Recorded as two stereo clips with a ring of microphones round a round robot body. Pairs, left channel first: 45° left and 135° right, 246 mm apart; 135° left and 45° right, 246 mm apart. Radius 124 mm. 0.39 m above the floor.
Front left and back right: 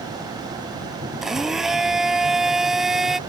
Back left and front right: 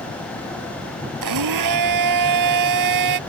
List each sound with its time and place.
1.2 s a blender: 45° right